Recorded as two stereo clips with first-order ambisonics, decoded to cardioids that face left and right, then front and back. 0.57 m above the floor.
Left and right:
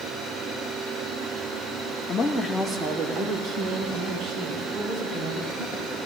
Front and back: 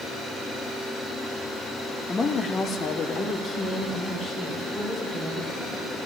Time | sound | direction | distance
2.1 | a woman speaking | 40° left | 1.0 m